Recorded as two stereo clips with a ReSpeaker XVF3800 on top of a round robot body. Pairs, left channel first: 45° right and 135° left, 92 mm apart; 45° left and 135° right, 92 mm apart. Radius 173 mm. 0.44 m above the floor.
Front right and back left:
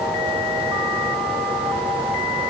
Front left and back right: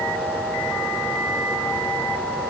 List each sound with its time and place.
Only background noise.